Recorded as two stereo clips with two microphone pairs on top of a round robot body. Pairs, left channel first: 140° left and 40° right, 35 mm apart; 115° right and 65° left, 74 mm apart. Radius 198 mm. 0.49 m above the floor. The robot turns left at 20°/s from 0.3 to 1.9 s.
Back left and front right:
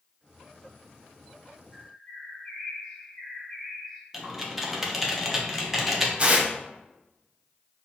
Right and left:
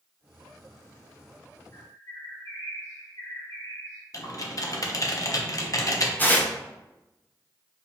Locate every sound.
1.7 s a bird: 150° right, 2.0 m
4.1 s typing on a keyboard: 125° right, 1.1 m
6.2 s tearing paper: 80° right, 1.3 m